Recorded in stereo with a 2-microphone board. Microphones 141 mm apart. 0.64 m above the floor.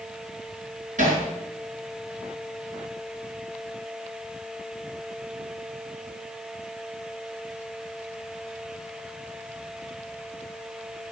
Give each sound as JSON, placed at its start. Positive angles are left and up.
{"t": 1.0, "sound": "hammering", "side_deg": -65, "distance_m": 5.0}